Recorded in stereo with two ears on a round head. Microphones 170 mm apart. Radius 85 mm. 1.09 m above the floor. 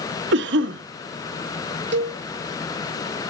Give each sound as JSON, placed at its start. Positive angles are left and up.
{"t": 0.3, "sound": "a cough", "side_deg": -65, "distance_m": 1.3}
{"t": 1.9, "sound": "a cowbell", "side_deg": -65, "distance_m": 1.9}